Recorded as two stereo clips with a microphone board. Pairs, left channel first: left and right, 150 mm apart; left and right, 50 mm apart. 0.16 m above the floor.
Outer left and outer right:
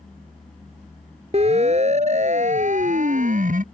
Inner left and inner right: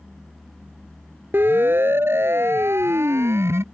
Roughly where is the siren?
Right.